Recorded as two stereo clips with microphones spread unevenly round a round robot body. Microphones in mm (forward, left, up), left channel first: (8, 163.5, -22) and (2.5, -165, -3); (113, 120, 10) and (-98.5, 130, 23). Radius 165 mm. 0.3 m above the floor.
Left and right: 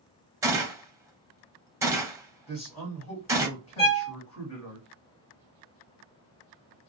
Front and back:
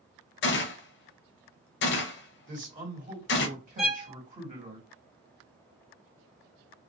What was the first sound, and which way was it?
A gunshot, 10° right.